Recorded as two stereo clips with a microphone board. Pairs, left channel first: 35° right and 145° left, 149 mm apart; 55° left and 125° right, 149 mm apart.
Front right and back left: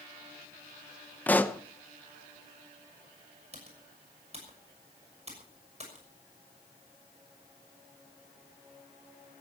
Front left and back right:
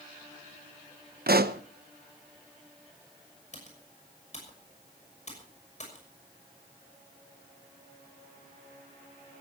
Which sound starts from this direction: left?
Typing on a keyboard, at 3.5 s.